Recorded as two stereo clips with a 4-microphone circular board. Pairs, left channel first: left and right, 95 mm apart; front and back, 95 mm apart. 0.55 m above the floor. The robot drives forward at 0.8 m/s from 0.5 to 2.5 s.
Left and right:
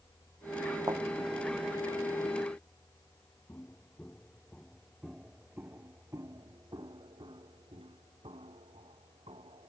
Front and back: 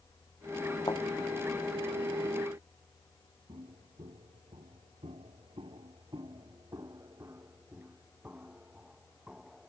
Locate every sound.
0.9 s a thud: 45° right
3.5 s footsteps: 160° left; by 9.7 s 100° right